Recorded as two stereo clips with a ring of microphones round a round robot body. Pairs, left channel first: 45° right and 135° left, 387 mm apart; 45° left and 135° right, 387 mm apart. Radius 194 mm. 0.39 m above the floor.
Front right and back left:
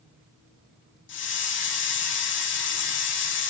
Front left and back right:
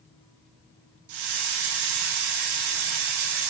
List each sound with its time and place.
1.1 s a hiss: 105° right, 3 m